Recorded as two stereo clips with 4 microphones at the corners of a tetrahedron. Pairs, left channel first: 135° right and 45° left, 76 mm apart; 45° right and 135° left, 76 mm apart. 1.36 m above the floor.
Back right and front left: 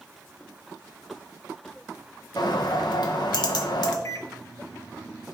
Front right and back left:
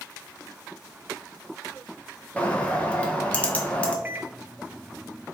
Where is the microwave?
165° right, 0.6 m.